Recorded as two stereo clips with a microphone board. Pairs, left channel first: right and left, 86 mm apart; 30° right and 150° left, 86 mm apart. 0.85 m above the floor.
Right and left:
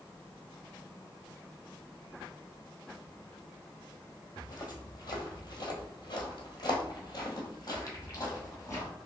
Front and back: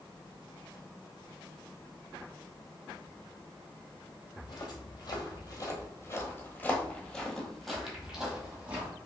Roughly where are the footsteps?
Ahead right.